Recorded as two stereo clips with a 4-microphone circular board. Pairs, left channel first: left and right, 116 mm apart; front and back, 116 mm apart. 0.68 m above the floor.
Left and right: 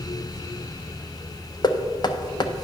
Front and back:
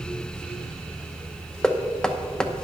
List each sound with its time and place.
1.6 s knocking: 80° left, 0.6 m